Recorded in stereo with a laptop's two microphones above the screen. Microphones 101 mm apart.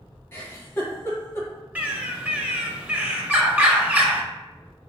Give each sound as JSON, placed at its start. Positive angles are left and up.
{"t": 0.3, "sound": "a giggle", "side_deg": 25, "distance_m": 1.3}
{"t": 1.8, "sound": "a bird", "side_deg": -15, "distance_m": 0.8}